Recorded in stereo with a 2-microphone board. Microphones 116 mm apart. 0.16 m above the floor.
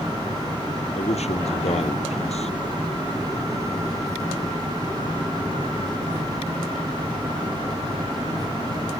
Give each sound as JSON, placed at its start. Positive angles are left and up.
{"t": 0.9, "sound": "a man speaking", "side_deg": 65}